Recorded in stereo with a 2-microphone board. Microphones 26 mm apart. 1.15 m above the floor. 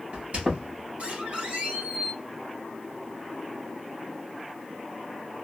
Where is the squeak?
65° right (ahead or behind), 2 m.